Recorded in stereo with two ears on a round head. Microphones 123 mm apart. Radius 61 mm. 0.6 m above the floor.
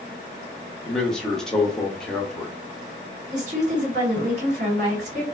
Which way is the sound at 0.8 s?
5° left (ahead or behind).